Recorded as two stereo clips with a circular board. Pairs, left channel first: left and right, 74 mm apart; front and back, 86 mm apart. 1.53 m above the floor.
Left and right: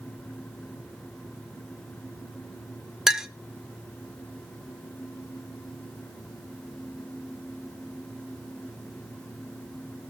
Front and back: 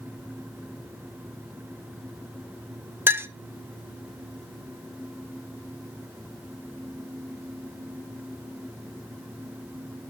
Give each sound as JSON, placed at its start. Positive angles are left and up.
{"t": 3.1, "sound": "a clink", "azimuth_deg": -165, "distance_m": 0.6}